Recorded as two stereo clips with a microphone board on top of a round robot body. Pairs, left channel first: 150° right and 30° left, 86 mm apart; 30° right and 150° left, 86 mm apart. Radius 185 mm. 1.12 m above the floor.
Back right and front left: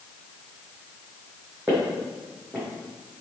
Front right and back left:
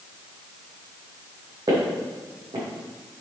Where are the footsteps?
105° left, 3.5 m.